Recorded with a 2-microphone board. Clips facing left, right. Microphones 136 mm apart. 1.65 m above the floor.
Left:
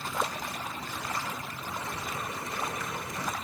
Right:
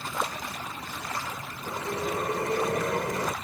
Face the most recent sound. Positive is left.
turn(degrees=-70)  # may be behind; listen again after turning